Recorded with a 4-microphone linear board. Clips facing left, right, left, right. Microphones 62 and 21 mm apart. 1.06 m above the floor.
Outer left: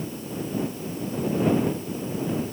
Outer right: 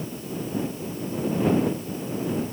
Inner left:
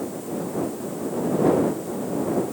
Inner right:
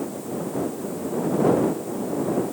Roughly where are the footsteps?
I don't hear footsteps.